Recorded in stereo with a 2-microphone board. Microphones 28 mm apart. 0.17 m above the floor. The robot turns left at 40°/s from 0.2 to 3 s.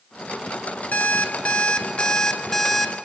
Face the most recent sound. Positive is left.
turn(degrees=0)